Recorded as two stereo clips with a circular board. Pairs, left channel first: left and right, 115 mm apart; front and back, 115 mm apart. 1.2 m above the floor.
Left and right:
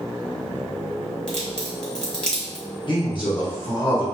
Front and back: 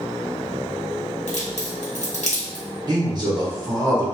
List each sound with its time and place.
1.3 s a crack: 5° left, 1.4 m
2.9 s a man speaking: 130° left, 1.2 m